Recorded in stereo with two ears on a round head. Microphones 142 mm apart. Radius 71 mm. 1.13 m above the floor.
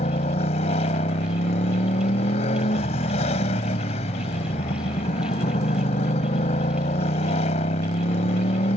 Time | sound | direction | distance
0.0 | a motorcycle | 40° left (ahead or behind) | ?